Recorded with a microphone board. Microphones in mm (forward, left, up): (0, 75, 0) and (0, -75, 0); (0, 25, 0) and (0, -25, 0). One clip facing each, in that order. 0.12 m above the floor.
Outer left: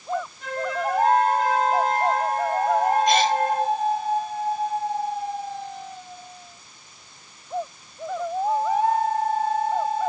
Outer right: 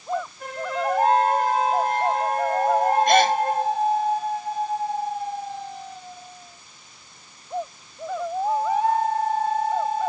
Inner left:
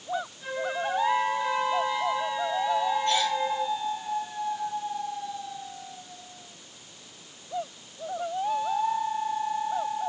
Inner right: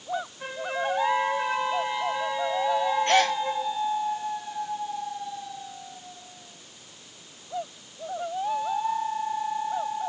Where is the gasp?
60° right (ahead or behind), 0.6 m.